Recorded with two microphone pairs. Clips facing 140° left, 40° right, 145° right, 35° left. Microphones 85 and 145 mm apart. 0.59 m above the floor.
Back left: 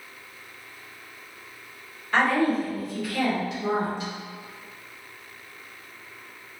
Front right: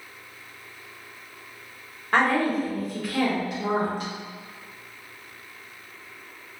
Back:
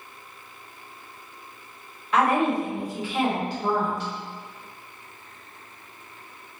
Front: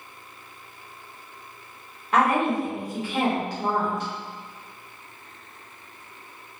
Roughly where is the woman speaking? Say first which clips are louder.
Even, even; ahead.